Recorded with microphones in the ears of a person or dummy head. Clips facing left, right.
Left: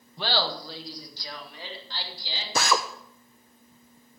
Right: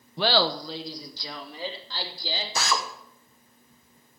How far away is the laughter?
About 0.8 m.